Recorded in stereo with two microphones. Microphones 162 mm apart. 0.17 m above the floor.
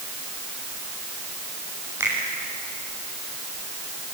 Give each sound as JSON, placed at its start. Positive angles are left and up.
{"t": 2.0, "sound": "a finger snap", "side_deg": -15, "distance_m": 6.5}